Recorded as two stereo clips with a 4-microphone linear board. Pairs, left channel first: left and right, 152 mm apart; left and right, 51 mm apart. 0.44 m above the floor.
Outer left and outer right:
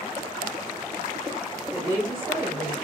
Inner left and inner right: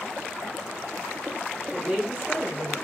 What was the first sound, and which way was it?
A woman speaking, 10° right (ahead or behind).